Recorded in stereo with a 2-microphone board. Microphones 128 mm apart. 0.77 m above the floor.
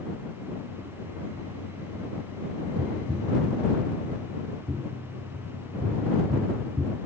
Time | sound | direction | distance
2.8 | tapping | 30° right (ahead or behind) | ?